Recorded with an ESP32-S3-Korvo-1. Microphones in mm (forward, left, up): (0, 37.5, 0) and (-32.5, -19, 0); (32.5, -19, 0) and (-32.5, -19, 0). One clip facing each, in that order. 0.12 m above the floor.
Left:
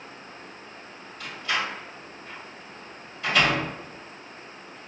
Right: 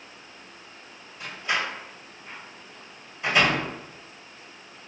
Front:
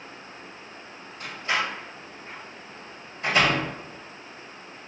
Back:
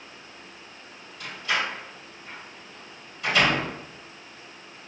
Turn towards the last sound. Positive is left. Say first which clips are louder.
# right 1 dB, even
turn(degrees=-50)